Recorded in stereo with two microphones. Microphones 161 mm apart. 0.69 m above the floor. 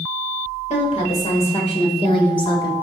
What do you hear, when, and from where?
0.7 s a woman speaking: 45° left (ahead or behind), 2.5 m; by 2.7 s 30° left (ahead or behind), 1.5 m